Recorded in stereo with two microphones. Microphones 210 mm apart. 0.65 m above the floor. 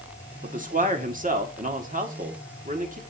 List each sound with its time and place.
0.4 s a man speaking: 40° right (ahead or behind), 1.5 m